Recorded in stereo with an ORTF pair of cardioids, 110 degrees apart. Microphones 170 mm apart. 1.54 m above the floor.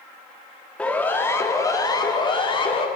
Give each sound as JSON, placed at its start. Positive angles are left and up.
{"t": 0.8, "sound": "a siren", "azimuth_deg": 5, "distance_m": 3.0}